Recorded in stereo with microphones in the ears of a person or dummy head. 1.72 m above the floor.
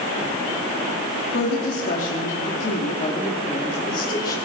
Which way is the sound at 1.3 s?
60° left (ahead or behind).